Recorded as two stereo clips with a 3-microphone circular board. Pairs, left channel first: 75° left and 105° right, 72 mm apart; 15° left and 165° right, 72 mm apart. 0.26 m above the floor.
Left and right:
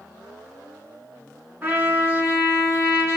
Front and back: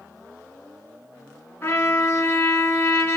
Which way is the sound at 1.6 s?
50° right.